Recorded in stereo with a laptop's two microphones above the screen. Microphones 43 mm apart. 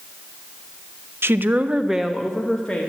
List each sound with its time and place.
1.2 s a woman speaking: 65° right (ahead or behind), 0.9 m; by 2.9 s 20° left (ahead or behind), 2 m